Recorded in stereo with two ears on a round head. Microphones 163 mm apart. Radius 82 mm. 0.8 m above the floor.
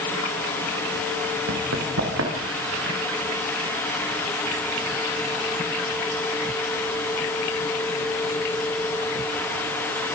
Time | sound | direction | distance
1.5 | running footsteps | 85° right | 7 m